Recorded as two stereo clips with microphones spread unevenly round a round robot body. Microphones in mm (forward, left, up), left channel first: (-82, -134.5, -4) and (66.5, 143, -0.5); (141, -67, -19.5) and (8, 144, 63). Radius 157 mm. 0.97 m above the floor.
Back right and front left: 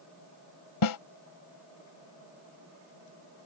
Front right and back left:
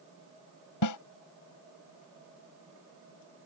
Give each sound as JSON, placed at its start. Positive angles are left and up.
{"t": 0.8, "sound": "a snare drum", "azimuth_deg": -90}